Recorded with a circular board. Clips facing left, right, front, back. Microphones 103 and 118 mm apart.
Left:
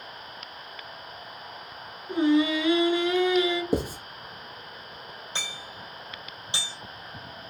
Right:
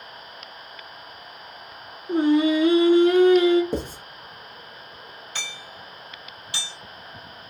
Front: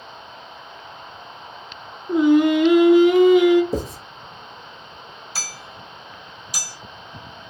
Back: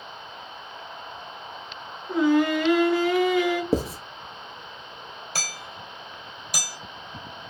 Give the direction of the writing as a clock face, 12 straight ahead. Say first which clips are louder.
Left 2 dB, back 1 dB; 6 o'clock.